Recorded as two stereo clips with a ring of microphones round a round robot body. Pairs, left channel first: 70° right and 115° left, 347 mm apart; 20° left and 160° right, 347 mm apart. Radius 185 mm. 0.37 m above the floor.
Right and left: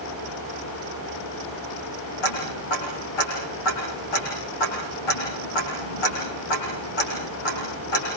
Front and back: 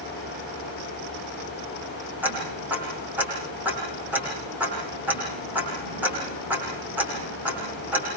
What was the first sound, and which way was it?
Ticking, 70° right.